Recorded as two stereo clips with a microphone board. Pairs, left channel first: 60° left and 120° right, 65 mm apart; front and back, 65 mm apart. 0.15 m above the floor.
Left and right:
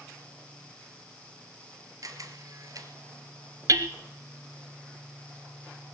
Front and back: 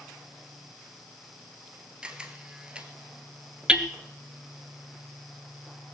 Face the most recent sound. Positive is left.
turn(degrees=-105)